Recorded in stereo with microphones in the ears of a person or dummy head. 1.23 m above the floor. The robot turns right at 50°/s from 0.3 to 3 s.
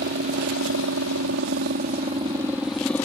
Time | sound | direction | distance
0.0 | a helicopter | 125° right | ?